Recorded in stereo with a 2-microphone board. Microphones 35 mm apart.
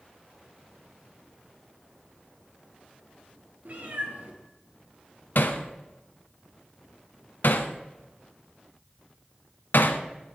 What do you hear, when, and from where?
3.6 s a cat meowing: 55° right (ahead or behind), 2.5 m
5.3 s hammering: 70° left (ahead or behind), 1.0 m